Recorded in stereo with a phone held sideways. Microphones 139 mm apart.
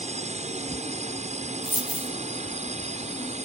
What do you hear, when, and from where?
0.0 s a drone: 55° right (ahead or behind)
1.6 s a dropped coin: 40° left (ahead or behind)